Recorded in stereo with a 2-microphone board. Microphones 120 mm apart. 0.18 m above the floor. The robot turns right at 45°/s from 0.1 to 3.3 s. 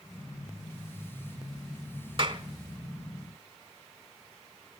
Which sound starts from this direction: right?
A clap, at 2.2 s.